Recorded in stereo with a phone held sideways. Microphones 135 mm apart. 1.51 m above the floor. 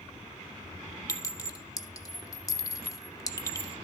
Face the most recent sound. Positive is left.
turn(degrees=25)  # may be behind; listen again after turning